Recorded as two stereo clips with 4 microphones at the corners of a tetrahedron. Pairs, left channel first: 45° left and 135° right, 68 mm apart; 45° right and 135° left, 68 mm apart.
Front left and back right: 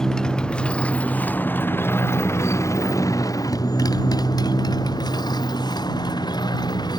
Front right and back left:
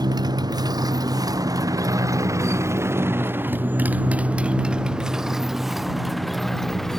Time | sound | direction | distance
0.0 | a motorcycle | 125° left | ?